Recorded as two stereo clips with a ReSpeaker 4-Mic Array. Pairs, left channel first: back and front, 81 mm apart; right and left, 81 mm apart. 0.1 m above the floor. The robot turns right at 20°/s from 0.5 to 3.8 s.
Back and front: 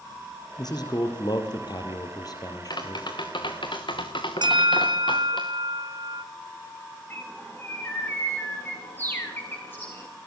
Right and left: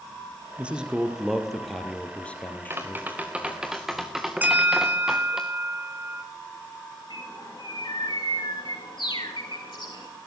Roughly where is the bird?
Behind right.